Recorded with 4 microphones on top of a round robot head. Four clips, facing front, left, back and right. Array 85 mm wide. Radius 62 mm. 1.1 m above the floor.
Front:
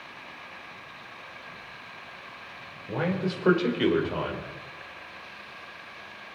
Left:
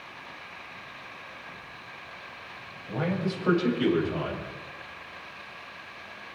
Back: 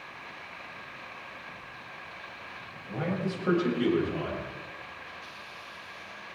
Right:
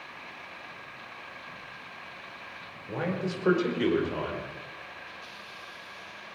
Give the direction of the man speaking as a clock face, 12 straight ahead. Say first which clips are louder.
Left 2 dB, front 3 dB; 1 o'clock.